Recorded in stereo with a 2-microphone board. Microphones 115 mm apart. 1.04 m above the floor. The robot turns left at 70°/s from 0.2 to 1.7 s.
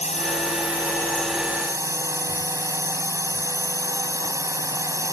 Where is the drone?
80° left; by 5.1 s 25° right.